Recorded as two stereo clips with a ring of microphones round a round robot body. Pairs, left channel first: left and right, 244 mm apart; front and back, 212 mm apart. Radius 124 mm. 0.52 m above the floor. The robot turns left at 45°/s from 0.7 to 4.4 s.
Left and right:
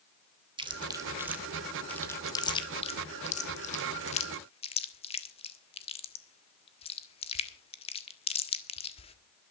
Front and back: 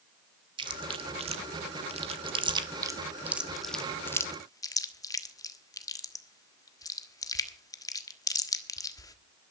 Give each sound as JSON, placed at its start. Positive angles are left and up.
{"t": 0.6, "sound": "chewing", "azimuth_deg": -140, "distance_m": 1.4}